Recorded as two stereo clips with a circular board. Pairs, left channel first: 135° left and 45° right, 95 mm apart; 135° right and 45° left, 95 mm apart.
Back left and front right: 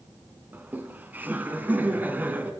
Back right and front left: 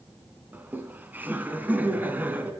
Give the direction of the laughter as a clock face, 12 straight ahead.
12 o'clock.